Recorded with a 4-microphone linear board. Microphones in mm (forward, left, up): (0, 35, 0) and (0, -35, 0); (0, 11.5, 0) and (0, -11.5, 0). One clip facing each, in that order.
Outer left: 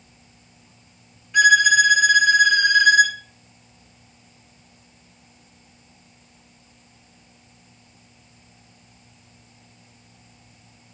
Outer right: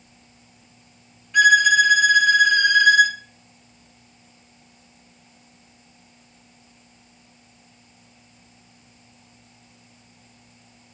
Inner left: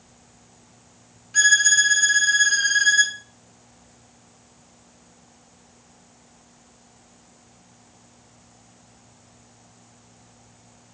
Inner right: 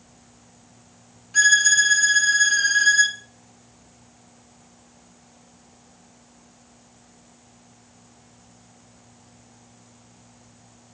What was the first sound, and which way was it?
A violin, centre (ahead or behind).